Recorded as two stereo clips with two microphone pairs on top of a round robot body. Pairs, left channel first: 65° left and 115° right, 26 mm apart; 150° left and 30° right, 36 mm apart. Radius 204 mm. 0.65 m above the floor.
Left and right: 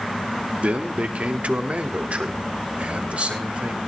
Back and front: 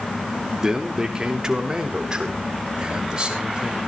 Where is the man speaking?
105° right, 2.5 m; by 3.8 s 95° right, 5 m.